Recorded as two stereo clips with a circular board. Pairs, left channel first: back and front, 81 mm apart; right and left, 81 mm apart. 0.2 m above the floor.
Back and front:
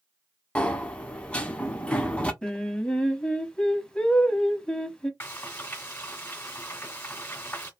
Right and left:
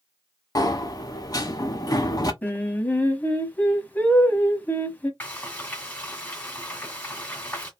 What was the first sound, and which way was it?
A sliding door, 110° right.